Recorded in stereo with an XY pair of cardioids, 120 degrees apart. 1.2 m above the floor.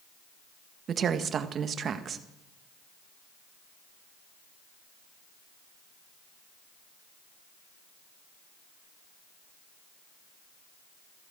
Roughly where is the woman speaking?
Ahead right.